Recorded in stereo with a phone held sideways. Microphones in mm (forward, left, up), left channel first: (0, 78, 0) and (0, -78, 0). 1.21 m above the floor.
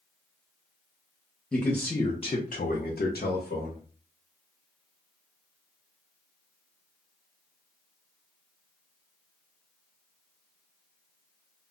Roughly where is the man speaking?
Centre.